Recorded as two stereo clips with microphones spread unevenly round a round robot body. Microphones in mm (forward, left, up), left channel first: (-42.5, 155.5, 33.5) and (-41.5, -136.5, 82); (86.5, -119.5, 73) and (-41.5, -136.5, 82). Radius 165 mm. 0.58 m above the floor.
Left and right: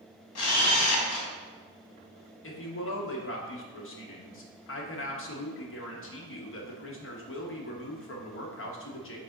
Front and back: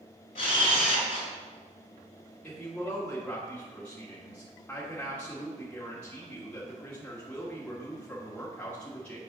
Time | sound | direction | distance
0.3 | a camera shutter | 45° left | 1.3 m
2.4 | a woman speaking | 80° left | 1.4 m